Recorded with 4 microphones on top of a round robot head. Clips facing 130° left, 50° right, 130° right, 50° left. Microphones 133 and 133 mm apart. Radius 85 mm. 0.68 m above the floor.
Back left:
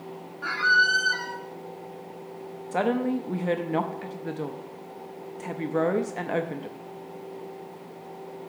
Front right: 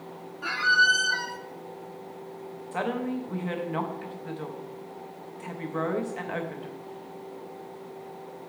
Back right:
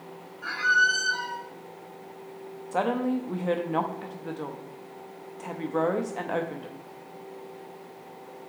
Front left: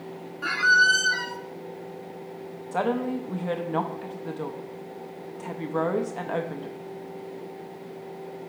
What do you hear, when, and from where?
0.4 s a squeak: 25° left, 0.6 m
2.7 s a woman speaking: 140° left, 0.7 m